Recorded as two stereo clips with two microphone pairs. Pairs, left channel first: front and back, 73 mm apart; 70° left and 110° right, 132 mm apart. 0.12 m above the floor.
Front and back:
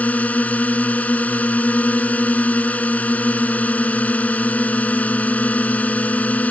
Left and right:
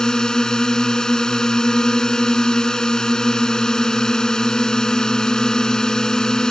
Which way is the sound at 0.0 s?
5° right.